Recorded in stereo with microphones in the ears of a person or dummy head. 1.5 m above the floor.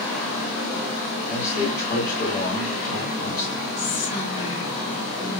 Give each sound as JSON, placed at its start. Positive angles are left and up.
{"t": 1.2, "sound": "a man speaking", "side_deg": 60, "distance_m": 2.5}
{"t": 3.8, "sound": "whispering", "side_deg": 85, "distance_m": 2.5}